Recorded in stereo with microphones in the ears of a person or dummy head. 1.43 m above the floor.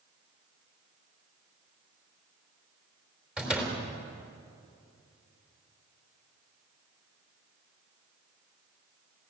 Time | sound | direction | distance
3.4 | a door slam | 5° right (ahead or behind) | 4 m